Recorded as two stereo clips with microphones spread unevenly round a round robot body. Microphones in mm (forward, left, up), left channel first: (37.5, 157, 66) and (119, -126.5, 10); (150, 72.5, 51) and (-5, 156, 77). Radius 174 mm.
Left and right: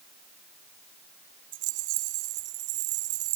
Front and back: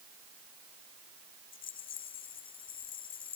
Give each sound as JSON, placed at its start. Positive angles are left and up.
{"t": 1.5, "sound": "a rattle", "azimuth_deg": -90}